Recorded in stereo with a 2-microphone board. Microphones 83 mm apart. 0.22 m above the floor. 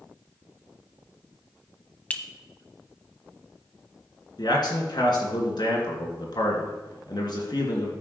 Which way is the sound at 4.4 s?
60° left (ahead or behind).